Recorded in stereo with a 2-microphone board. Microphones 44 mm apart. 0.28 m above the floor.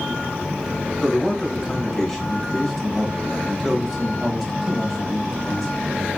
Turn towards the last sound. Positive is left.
turn(degrees=5)  # may be behind; listen again after turning